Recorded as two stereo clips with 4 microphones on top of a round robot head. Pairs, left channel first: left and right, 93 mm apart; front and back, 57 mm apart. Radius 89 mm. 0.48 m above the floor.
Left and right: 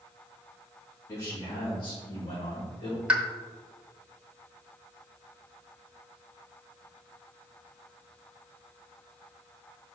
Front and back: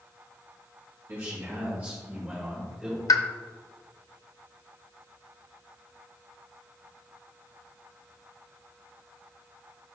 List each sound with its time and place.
1.1 s a man speaking: 140° left, 1.9 m; by 3.0 s 105° left, 2 m
3.1 s a pop: 10° right, 0.8 m